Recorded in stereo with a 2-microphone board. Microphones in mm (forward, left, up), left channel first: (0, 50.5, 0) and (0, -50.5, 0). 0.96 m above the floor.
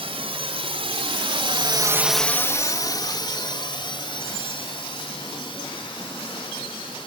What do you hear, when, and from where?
0.0 s a drone: 65° right (ahead or behind); by 7.1 s 55° left (ahead or behind)